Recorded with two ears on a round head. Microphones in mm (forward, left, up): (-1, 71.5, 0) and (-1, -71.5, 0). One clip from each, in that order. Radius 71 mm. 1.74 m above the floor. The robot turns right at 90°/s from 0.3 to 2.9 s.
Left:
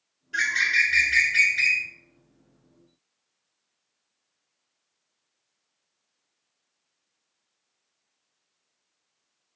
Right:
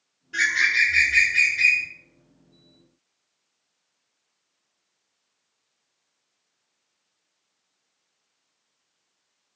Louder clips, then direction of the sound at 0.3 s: Right 2 dB; 5° left.